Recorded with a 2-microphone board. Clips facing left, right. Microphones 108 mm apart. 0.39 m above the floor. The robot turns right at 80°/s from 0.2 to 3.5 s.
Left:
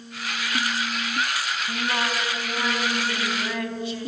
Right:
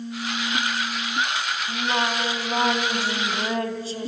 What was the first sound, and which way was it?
Singing, straight behind.